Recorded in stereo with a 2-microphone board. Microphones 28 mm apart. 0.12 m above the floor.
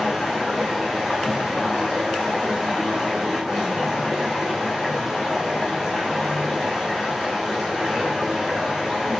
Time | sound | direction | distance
0.0 | running water | 5° right (ahead or behind) | 2.5 m